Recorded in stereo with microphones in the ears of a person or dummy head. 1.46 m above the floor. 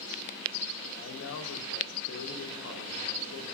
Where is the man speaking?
75° left (ahead or behind), 1.1 m.